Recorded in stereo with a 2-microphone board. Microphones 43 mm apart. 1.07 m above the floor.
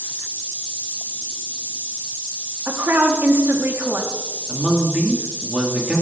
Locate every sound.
2.7 s a woman speaking: 60° right (ahead or behind), 1.1 m
4.5 s a man speaking: 25° right (ahead or behind), 1.6 m